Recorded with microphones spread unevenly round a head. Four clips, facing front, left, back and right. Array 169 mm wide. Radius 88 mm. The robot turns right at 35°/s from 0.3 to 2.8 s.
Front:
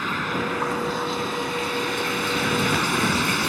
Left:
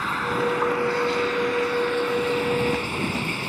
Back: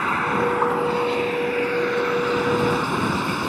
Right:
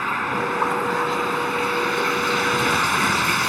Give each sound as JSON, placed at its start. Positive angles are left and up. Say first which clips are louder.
{"t": 0.0, "sound": "running water", "louder": "right 1 dB, back 5 dB", "azimuth_deg": -160}